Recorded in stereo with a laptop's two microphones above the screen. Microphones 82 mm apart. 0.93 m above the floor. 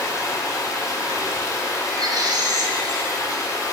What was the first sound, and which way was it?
Running water, 40° left (ahead or behind).